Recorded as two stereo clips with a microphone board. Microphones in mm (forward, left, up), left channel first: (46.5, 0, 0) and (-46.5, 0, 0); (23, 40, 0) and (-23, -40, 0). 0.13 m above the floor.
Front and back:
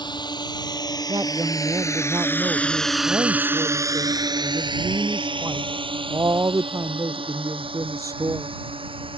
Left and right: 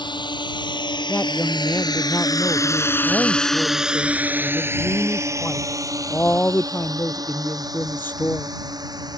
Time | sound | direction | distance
0.0 | a drone | 30° left | ?
1.1 | a woman speaking | 125° left | ?